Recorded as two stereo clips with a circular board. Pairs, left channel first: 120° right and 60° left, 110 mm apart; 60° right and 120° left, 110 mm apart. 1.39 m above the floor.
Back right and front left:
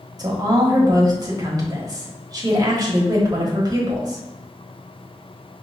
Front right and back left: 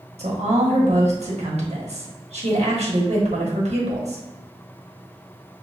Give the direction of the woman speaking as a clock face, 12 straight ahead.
8 o'clock.